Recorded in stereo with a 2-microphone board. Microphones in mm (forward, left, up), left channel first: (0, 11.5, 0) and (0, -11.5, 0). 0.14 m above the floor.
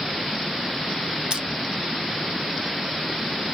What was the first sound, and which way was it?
Crushing, 40° right (ahead or behind).